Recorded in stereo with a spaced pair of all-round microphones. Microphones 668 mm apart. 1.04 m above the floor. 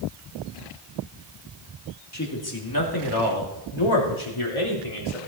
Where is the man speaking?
25° left (ahead or behind), 2 m; by 5.2 s 50° left (ahead or behind), 3 m.